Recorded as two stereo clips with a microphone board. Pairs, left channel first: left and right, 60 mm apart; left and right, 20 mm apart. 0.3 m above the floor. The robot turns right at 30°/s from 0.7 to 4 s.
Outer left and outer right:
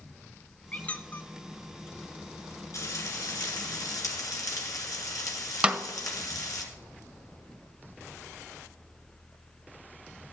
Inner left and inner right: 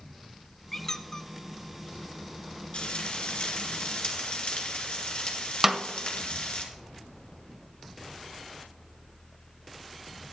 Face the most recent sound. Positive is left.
turn(degrees=-20)  # may be behind; listen again after turning